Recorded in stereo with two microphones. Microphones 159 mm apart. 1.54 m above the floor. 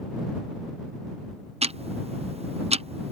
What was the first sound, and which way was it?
Ticking, 40° right (ahead or behind).